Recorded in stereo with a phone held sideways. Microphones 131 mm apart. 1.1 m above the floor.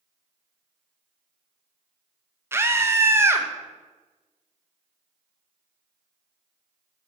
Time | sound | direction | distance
2.5 | a scream | 20° right (ahead or behind) | 0.8 m